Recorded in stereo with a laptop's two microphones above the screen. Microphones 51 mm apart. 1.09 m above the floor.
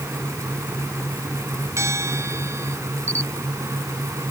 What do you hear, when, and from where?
0.0 s a fan: 75° right (ahead or behind)
1.8 s a bell: 65° right (ahead or behind)
3.1 s a camera shutter: 45° right (ahead or behind)